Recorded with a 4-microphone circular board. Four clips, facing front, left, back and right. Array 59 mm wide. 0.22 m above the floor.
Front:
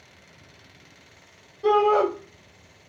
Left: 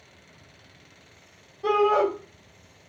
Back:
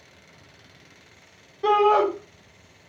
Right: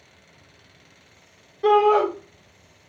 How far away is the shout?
About 3 m.